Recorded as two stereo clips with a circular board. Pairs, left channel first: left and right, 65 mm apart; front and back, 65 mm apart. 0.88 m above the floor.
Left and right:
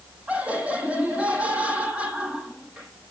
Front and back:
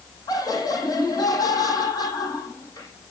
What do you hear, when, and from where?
0.3 s laughter: 20° right, 6 m